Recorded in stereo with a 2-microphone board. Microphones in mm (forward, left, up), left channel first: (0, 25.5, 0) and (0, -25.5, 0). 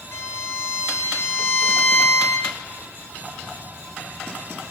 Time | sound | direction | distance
0.1 | a violin | 65° left (ahead or behind) | 1.2 m